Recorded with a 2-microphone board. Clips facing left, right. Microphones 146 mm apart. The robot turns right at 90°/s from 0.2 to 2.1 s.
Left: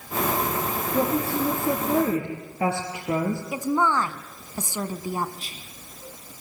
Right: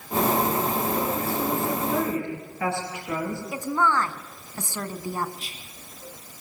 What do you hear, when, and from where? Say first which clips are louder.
0.9 s a woman speaking: left 3 dB; 45° left, 4.5 m; by 3.4 s 145° left, 4.5 m
3.5 s a woman speaking: even; 15° left (ahead or behind), 1.4 m
5.4 s whispering: left 1 dB; 40° left (ahead or behind), 2.5 m